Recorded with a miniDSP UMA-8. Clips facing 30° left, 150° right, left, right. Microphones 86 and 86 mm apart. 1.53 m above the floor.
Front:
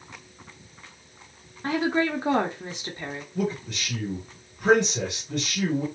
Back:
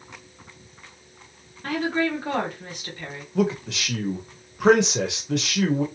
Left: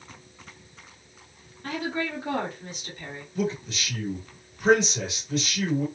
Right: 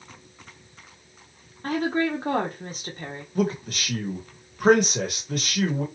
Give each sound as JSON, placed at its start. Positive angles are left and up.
{"t": 1.6, "sound": "a woman speaking", "azimuth_deg": -40, "distance_m": 0.8}
{"t": 3.4, "sound": "a man speaking", "azimuth_deg": -135, "distance_m": 0.9}